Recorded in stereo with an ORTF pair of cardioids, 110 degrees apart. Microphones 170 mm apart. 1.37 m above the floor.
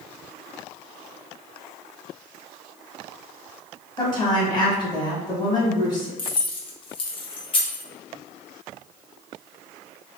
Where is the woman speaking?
25° left, 1.7 m.